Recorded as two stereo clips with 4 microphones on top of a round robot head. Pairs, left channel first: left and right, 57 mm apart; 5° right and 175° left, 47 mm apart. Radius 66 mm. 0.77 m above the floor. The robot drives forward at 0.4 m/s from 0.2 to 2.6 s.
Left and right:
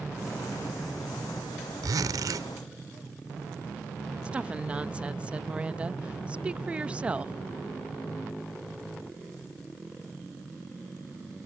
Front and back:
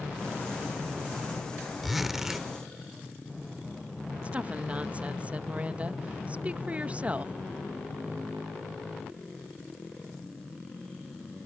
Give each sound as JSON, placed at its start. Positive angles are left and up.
{"t": 1.8, "sound": "a zipper", "azimuth_deg": -95}
{"t": 4.2, "sound": "a woman speaking", "azimuth_deg": -145}